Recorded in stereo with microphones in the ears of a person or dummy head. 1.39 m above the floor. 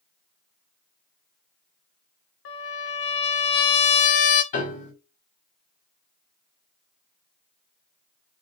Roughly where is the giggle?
I don't hear a giggle.